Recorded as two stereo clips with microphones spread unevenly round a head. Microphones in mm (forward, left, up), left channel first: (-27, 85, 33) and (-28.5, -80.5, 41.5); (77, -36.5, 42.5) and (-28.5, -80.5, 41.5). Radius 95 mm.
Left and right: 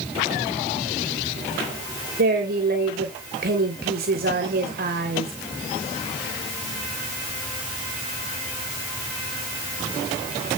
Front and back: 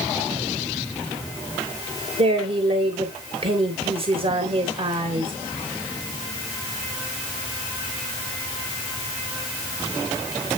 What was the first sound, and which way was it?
A woman speaking, 120° right.